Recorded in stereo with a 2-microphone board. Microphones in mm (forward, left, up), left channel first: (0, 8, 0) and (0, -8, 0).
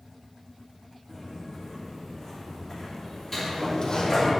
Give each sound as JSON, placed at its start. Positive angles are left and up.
{"t": 1.1, "sound": "footsteps", "side_deg": 15, "distance_m": 3.0}
{"t": 3.3, "sound": "a sliding door", "side_deg": 15, "distance_m": 2.0}